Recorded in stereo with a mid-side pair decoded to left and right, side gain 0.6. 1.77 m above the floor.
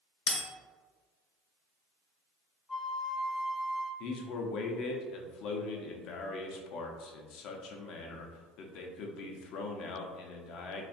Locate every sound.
0.3 s a bell: 70° left, 1.1 m
2.7 s a flute: 25° left, 0.8 m
4.0 s a man speaking: 65° left, 0.6 m